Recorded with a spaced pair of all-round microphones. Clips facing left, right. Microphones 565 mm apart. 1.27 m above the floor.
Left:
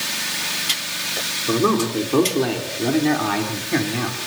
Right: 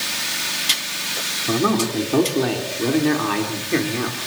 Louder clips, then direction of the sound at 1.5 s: Left 1 dB; 15° right (ahead or behind).